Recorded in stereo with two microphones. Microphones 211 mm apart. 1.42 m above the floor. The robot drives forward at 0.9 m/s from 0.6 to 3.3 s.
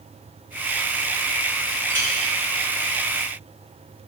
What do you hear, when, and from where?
1.9 s a clink: 65° right (ahead or behind), 4 m; by 2.1 s 60° right (ahead or behind), 4.5 m